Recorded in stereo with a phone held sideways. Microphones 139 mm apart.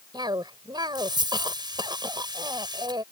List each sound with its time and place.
0.1 s a cough: 30° right (ahead or behind)